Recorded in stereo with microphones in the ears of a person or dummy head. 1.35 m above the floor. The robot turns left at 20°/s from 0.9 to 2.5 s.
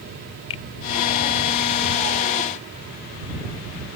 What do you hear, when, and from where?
0.5 s a finger snap: 25° left (ahead or behind)